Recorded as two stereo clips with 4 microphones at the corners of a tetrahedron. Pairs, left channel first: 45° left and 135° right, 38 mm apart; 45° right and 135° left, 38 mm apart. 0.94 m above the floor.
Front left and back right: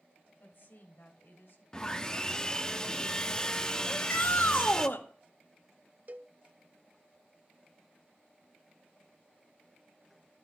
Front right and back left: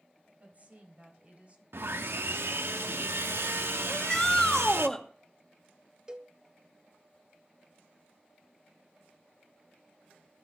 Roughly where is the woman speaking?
Left.